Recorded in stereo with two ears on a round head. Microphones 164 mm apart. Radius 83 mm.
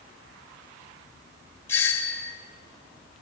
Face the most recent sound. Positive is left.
turn(degrees=15)  # may be behind; listen again after turning